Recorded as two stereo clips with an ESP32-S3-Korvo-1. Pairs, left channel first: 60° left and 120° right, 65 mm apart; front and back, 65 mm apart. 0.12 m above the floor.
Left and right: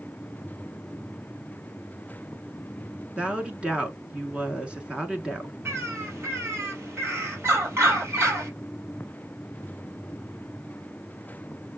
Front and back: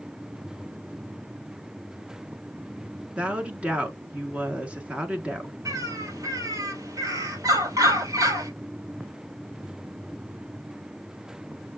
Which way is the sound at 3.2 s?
160° right.